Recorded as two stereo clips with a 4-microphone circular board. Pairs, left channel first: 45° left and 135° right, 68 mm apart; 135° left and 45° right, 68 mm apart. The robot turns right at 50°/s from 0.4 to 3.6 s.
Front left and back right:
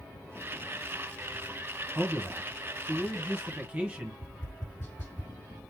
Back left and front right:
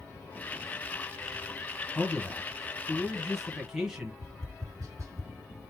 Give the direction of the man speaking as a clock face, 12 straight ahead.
7 o'clock.